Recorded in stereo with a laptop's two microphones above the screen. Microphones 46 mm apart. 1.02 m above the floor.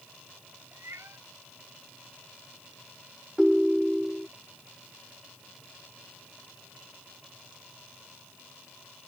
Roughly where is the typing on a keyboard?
I don't hear typing on a keyboard.